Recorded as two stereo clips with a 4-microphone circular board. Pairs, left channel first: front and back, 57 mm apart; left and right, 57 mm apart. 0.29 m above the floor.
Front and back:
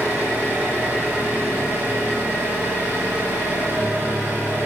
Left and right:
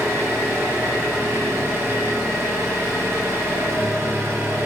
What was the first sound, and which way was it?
An engine running, 125° right.